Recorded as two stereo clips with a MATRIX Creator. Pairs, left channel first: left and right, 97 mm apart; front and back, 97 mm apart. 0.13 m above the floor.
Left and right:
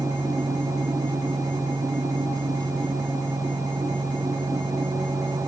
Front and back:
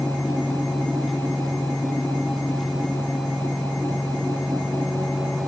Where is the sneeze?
No sneeze in this recording.